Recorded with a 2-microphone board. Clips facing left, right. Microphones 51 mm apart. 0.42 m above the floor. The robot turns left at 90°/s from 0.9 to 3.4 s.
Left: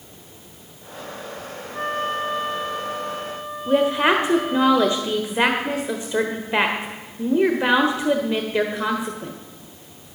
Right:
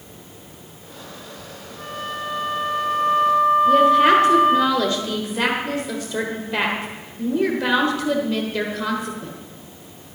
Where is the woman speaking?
20° left (ahead or behind), 1.1 m.